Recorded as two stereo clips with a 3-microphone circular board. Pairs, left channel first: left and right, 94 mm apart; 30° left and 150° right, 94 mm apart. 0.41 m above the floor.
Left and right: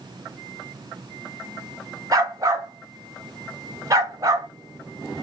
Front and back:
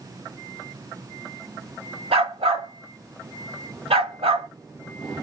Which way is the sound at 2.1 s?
145° right.